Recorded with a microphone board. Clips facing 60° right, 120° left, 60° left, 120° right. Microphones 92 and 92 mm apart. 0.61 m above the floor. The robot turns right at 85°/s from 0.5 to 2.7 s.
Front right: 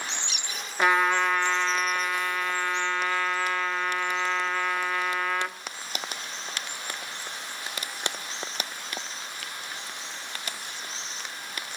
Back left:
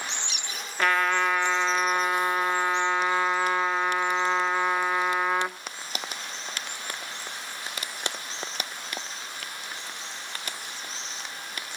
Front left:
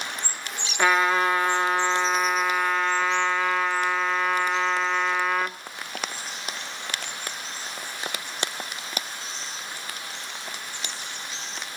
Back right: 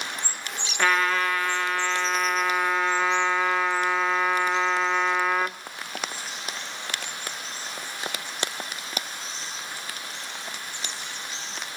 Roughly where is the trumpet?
Ahead.